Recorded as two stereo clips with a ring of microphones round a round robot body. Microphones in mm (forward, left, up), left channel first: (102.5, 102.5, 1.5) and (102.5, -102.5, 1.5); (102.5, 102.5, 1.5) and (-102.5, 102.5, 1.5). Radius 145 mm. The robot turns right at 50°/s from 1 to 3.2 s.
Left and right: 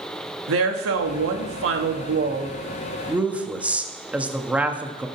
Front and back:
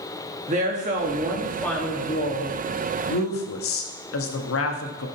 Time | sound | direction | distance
0.5 | a woman speaking | 115° right | 1.5 m